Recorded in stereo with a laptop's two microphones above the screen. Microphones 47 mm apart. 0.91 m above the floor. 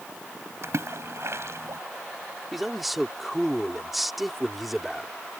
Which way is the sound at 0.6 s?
70° right (ahead or behind).